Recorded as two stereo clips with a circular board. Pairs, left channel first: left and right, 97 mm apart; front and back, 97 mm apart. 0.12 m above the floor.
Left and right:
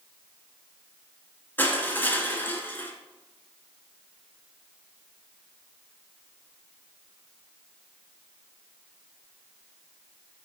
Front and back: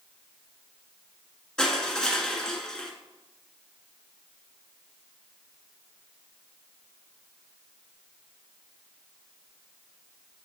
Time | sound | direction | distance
1.6 | crushing | 65° left | 1.4 m